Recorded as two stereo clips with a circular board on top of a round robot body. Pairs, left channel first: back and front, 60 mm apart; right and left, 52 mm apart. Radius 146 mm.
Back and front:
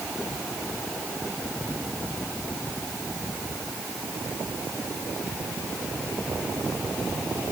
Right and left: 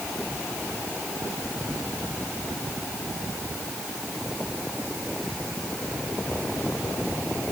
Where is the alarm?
No alarm in this recording.